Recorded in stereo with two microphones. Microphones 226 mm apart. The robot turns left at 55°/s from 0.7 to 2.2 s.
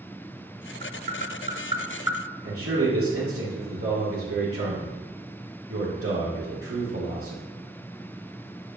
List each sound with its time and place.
0.8 s tapping: 45° right (ahead or behind), 1.0 m; by 2.2 s 10° right (ahead or behind), 1.0 m
2.4 s a man speaking: 85° right, 1.8 m